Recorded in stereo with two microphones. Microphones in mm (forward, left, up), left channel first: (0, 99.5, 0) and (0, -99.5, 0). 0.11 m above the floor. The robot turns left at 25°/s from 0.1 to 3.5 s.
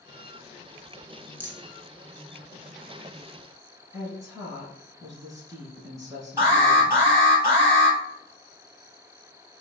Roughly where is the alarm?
Centre.